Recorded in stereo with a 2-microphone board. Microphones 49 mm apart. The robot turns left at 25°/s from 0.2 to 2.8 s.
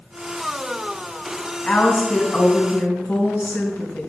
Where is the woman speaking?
5° left (ahead or behind), 3.5 m; by 4.1 s 35° left (ahead or behind), 3.5 m.